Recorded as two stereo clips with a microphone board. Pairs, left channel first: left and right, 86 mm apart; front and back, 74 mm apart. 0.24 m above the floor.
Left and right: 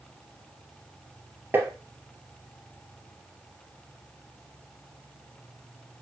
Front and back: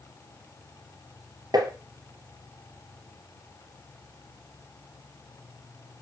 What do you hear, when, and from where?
1.5 s tapping: 155° right, 2.5 m